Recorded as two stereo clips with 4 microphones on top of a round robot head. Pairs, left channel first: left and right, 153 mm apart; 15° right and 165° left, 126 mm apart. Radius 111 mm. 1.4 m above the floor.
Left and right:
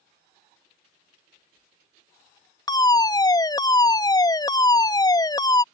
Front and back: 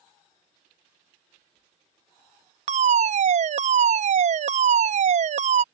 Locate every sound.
2.7 s a fire alarm: 155° left